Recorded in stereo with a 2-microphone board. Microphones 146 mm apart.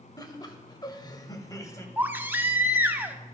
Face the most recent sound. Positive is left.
turn(degrees=-15)  # may be behind; listen again after turning